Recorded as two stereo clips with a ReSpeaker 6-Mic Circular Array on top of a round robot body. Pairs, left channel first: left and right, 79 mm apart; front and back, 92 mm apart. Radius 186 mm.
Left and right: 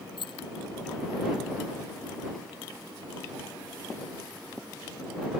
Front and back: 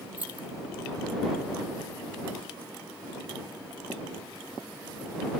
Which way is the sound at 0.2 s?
105° left.